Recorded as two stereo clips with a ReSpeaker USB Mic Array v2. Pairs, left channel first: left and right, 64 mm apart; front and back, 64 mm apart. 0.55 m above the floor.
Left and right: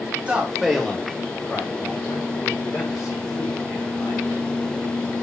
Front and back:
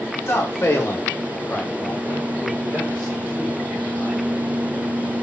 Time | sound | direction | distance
0.3 | a man speaking | 25° right | 1.1 m